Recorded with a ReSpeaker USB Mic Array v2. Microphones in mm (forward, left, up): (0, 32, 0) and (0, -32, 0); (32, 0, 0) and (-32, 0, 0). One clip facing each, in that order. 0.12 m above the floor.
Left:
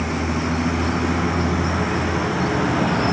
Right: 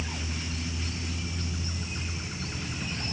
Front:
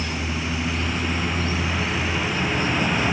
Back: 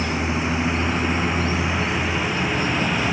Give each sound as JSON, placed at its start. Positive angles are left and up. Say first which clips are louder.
{"t": 0.0, "sound": "a vehicle", "louder": "left 14 dB, back 4 dB", "azimuth_deg": 115}